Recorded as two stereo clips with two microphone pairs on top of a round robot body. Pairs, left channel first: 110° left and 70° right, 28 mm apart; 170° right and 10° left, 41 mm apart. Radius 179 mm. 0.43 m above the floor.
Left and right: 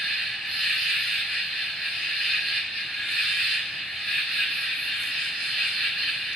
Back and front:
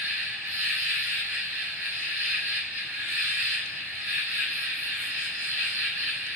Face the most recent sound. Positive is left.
turn(degrees=35)